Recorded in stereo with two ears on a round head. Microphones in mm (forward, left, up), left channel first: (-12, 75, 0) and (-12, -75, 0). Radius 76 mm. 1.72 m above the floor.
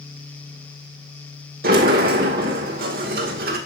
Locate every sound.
1.6 s a sliding door: 55° right (ahead or behind), 2.5 m